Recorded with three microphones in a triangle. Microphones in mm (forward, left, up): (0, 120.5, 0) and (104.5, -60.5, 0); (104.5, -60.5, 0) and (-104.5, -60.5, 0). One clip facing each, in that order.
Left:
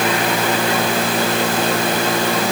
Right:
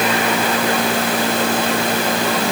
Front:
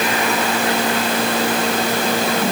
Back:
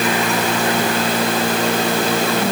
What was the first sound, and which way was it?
Only background noise.